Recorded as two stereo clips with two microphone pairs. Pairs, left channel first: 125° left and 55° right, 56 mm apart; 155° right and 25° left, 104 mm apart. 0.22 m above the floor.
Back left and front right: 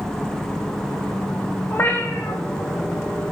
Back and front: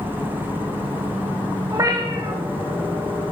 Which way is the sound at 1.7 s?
80° left.